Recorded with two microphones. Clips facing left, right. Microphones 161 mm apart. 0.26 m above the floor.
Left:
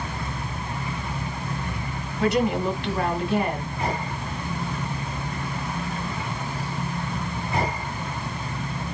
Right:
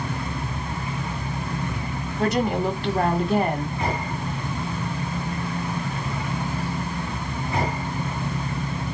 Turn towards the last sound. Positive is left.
turn(degrees=-45)  # may be behind; listen again after turning